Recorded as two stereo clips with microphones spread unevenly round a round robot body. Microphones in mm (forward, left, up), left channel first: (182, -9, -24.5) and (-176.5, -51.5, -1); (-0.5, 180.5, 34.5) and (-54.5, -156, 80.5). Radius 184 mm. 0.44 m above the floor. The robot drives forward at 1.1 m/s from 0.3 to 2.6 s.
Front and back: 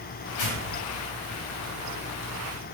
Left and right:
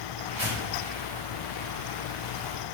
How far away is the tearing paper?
About 3 m.